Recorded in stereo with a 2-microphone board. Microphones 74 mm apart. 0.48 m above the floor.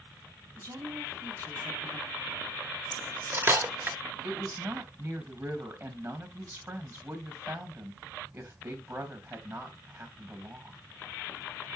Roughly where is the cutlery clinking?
Right.